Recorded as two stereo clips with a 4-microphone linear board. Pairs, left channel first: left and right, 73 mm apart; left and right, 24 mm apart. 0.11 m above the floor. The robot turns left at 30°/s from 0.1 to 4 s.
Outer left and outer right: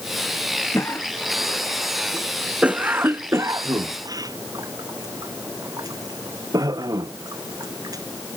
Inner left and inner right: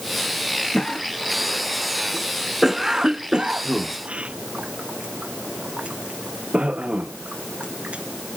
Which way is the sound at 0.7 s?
40° left (ahead or behind).